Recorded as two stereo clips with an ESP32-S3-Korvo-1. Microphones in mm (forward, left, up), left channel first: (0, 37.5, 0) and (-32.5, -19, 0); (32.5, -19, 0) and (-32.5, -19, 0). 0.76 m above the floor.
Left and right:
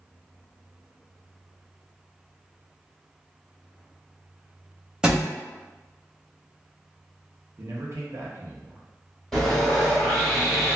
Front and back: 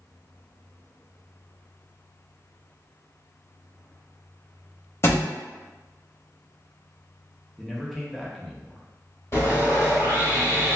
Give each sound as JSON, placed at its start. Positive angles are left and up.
{"t": 5.0, "sound": "a thud", "azimuth_deg": -45, "distance_m": 1.0}
{"t": 7.6, "sound": "a man speaking", "azimuth_deg": -85, "distance_m": 0.8}
{"t": 9.3, "sound": "sawing", "azimuth_deg": -25, "distance_m": 1.6}